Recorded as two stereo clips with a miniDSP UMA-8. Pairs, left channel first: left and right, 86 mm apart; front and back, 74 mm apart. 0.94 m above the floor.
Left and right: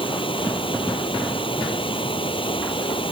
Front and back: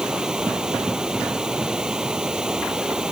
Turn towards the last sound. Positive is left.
turn(degrees=100)